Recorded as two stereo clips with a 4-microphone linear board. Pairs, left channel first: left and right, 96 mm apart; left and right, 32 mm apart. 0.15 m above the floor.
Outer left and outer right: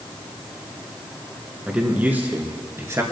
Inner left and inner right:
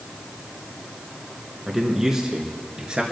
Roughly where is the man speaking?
Centre.